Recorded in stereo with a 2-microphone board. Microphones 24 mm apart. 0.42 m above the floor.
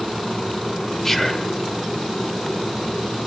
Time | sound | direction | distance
1.0 | whispering | 15° left (ahead or behind) | 1.0 m